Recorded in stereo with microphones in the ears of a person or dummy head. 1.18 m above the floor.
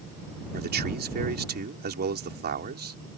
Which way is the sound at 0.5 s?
45° right (ahead or behind).